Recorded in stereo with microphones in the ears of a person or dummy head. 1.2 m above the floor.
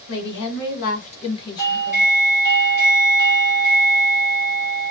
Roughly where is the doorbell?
Left.